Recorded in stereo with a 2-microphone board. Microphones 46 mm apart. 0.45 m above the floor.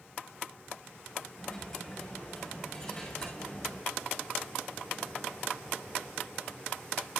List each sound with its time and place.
1.4 s a dropped coin: 15° left (ahead or behind), 7.5 m